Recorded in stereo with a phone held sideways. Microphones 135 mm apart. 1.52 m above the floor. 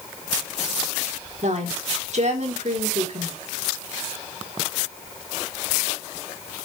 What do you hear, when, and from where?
1.4 s a woman speaking: 60° right (ahead or behind), 3.5 m